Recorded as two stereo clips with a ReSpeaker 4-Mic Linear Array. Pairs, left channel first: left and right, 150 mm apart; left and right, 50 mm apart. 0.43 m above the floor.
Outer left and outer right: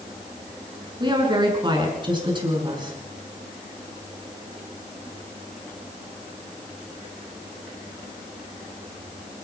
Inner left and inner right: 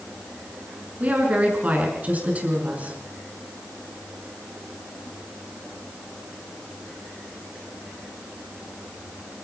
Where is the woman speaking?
30° right (ahead or behind), 6.5 m.